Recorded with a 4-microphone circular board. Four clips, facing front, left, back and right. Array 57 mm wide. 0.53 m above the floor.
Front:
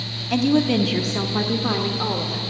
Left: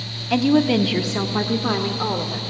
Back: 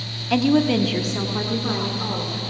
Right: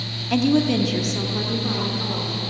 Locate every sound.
0.3 s a woman speaking: 150° left, 0.6 m; by 2.4 s 55° left, 1.3 m